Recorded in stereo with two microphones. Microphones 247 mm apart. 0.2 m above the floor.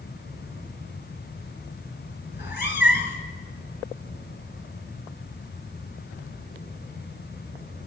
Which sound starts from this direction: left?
A cat meowing, at 2.3 s.